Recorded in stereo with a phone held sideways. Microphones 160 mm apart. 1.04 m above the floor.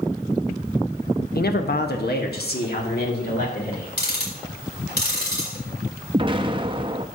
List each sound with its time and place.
1.4 s a man speaking: 70° left (ahead or behind), 0.8 m
4.0 s ticking: 75° left (ahead or behind), 3.5 m
6.1 s an explosion: 30° right (ahead or behind), 0.6 m